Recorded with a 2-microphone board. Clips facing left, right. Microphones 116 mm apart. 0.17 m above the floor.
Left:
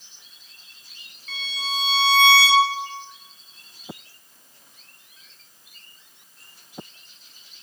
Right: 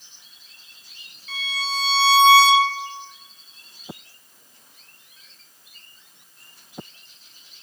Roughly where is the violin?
Left.